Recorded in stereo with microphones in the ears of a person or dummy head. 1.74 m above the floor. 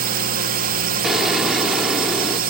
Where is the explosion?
Centre (ahead or behind).